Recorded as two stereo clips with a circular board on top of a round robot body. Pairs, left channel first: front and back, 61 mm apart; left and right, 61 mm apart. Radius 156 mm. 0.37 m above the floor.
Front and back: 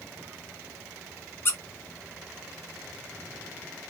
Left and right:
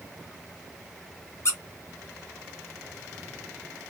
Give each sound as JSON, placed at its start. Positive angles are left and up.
{"t": 1.4, "sound": "a squeak", "azimuth_deg": 50, "distance_m": 0.8}